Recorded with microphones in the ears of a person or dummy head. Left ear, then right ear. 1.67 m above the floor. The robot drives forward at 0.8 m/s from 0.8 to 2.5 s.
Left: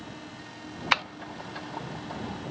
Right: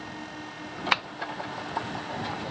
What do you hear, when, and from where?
0.9 s tapping: 5° left (ahead or behind)